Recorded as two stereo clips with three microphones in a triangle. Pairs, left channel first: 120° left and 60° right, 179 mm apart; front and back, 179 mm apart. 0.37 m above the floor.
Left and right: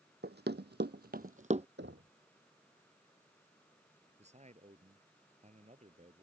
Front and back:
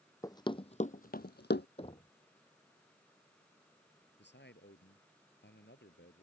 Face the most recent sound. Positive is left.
turn(degrees=-10)